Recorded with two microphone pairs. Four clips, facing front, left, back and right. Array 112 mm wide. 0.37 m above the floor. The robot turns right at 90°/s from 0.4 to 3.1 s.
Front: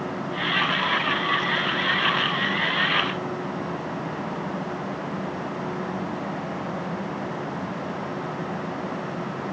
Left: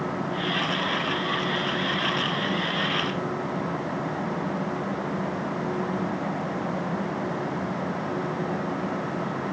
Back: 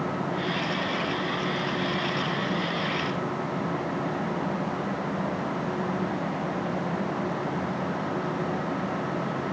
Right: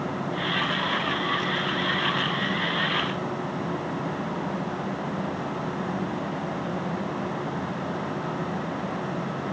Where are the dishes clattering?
No dishes clattering in this recording.